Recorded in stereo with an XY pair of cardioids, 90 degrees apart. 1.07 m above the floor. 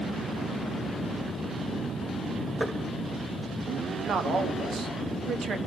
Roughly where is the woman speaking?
Ahead right.